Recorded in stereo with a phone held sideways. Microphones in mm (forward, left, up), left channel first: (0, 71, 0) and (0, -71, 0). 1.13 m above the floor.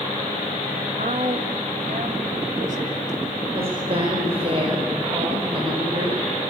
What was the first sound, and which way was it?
A woman speaking, 65° right (ahead or behind).